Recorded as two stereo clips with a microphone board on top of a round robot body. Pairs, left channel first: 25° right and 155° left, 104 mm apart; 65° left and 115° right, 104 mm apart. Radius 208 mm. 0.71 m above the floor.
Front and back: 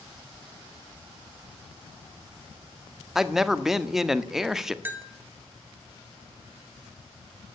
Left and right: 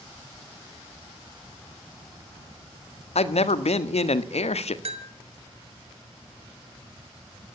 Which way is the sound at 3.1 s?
70° left.